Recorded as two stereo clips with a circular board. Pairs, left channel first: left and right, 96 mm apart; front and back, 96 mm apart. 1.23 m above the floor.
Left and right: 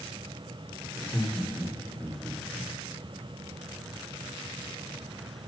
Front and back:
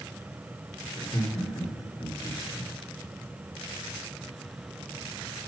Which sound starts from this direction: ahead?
Laughter, at 0.9 s.